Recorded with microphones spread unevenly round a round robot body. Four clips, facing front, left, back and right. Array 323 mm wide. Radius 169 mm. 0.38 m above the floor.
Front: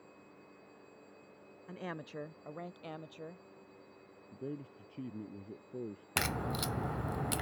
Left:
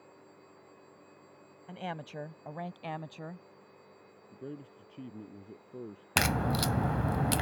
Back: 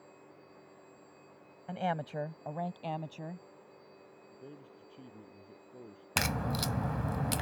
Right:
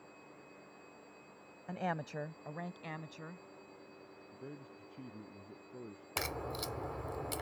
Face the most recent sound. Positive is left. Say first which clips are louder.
# left 10 dB, back 2 dB
turn(degrees=110)